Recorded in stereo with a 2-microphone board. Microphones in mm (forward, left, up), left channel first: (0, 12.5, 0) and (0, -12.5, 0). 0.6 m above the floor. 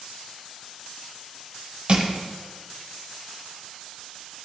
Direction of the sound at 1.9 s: 40° right (ahead or behind).